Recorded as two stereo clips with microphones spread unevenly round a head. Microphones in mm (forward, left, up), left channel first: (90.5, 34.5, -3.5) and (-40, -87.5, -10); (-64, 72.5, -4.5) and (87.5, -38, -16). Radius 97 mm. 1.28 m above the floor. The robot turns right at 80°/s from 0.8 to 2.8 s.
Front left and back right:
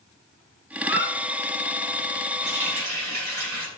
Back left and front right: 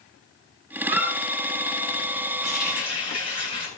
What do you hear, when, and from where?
0.8 s a squeak: 35° left, 7 m; by 1.1 s 60° left, 7 m
2.4 s a running tap: straight behind, 9 m; by 3.7 s 150° right, 9 m